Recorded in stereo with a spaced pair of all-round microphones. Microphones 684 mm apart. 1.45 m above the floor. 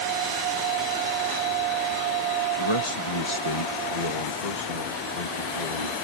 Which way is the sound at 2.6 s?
45° left (ahead or behind).